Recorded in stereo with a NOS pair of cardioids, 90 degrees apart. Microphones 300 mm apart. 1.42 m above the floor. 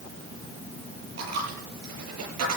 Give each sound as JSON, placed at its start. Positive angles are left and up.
{"t": 1.2, "sound": "a dropped coin", "azimuth_deg": -60, "distance_m": 8.5}